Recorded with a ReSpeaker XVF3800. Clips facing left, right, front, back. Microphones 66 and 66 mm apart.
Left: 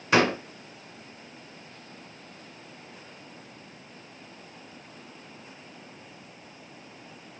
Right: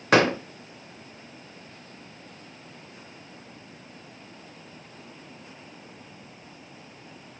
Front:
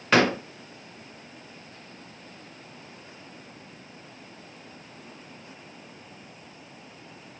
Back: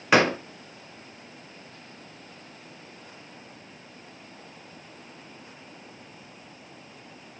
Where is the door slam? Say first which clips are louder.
Right 2 dB, back 1 dB; 100° right, 0.9 m.